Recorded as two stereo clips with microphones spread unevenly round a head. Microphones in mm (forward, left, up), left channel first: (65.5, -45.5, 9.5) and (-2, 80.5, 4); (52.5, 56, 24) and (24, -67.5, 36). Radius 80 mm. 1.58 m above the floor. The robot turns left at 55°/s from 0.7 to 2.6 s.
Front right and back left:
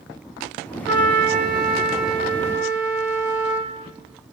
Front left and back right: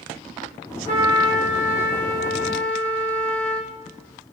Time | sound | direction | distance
0.9 | a trumpet | 140° left | 3 m